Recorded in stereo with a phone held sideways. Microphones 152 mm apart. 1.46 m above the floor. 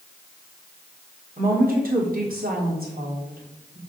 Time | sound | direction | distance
1.4 | a woman speaking | 80° right | 4 m